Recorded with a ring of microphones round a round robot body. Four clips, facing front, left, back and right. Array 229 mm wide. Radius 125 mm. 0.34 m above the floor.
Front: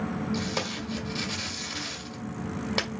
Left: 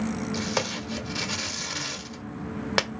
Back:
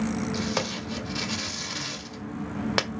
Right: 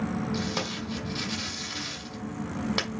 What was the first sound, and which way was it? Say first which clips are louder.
Tape being pulled: left 2 dB, back 2 dB; 120° left.